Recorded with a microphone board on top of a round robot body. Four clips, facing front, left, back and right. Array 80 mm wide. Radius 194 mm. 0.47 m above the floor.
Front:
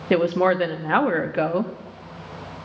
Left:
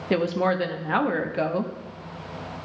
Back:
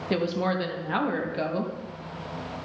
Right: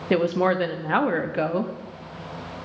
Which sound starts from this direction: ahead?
A woman speaking, at 0.1 s.